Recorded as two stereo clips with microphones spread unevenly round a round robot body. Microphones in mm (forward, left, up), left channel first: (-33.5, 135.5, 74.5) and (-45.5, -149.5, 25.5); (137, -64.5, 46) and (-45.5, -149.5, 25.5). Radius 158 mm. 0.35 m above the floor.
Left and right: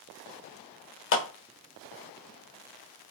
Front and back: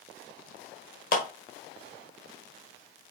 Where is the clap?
55° left, 1.5 m.